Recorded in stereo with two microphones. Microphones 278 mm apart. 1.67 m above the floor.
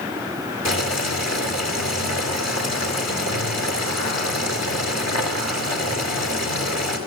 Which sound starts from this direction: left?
Boiling, at 0.7 s.